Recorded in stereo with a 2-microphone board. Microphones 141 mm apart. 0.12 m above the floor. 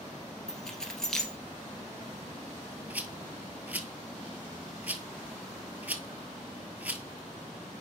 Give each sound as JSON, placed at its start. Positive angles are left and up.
{"t": 0.5, "sound": "keys jangling", "side_deg": 5, "distance_m": 1.6}
{"t": 2.9, "sound": "a rattle", "side_deg": -10, "distance_m": 0.8}